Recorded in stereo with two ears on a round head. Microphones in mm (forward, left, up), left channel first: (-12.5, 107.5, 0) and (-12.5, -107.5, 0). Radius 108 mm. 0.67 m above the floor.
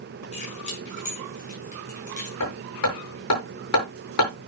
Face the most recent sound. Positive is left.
turn(degrees=75)  # may be behind; listen again after turning